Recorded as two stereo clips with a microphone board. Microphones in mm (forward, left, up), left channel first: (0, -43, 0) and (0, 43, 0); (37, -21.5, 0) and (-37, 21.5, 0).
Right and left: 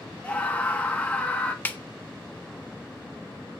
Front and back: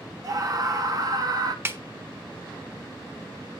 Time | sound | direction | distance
0.2 | a scream | 165° right | 1.6 m
1.6 | a snare drum | 155° right | 0.8 m